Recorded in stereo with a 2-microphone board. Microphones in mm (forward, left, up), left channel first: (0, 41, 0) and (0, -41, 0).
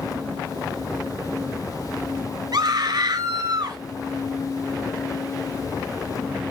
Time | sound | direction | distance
2.5 | a scream | 55° right (ahead or behind) | 2 m